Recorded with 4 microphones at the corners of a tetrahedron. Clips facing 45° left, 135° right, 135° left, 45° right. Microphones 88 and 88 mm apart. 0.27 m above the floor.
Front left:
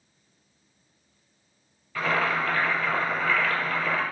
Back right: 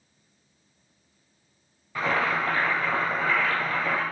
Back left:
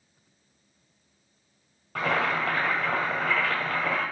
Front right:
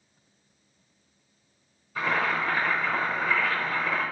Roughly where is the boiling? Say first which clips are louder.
Even, back left 1 dB; behind left.